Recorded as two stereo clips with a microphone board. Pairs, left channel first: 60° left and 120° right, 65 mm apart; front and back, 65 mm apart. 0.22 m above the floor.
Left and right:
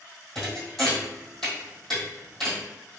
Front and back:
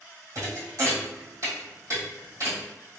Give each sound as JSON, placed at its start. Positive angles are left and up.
{"t": 0.3, "sound": "a thud", "azimuth_deg": 145, "distance_m": 1.5}